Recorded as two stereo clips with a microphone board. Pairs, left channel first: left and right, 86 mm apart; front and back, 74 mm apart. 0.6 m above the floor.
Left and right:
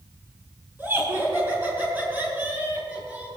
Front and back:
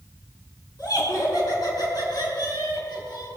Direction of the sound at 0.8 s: 25° right.